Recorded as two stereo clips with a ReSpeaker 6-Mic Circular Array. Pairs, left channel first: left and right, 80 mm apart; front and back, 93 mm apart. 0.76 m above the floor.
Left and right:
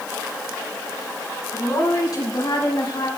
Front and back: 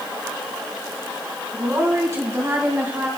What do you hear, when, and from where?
1.5 s a woman speaking: 130° left, 6.5 m; by 3.1 s 110° left, 5.5 m